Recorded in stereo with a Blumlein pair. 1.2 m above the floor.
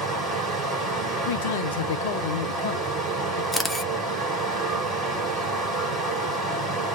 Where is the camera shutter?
5° left, 0.8 m.